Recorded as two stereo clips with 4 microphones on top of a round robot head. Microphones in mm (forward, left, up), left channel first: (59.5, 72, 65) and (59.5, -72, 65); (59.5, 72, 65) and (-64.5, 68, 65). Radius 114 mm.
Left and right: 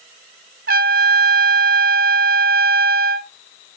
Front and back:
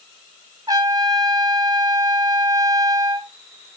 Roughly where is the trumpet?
Right.